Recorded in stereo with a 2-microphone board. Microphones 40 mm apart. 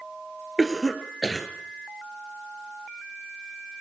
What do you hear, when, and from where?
0.6 s a cough: centre (ahead or behind), 2.5 m